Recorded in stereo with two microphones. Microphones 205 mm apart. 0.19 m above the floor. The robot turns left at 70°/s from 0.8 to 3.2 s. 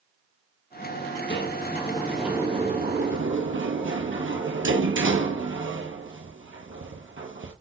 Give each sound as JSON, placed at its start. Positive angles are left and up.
{"t": 1.3, "sound": "a sliding door", "side_deg": 60, "distance_m": 1.2}